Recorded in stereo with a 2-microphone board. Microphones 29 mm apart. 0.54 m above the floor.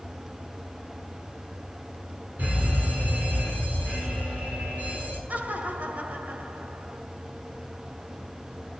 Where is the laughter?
65° right (ahead or behind), 2 m.